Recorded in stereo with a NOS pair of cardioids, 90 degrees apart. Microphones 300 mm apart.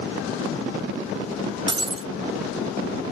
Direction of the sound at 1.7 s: 20° right.